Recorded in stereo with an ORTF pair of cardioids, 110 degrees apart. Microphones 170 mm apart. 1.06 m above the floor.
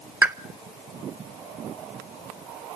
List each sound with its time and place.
0.2 s a pop: 10° right, 0.6 m